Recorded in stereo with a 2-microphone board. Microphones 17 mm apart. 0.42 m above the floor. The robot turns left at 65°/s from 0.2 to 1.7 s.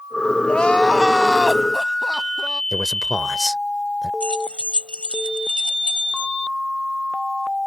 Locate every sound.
0.5 s crying: 70° left; by 2.6 s 10° right
2.7 s a man speaking: 10° left (ahead or behind)
4.2 s keys jangling: 60° left (ahead or behind)